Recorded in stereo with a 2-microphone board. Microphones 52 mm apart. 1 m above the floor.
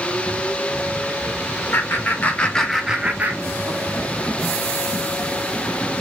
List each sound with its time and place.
1.7 s laughter: 45° left (ahead or behind), 0.9 m; by 3.9 s 60° right (ahead or behind), 0.8 m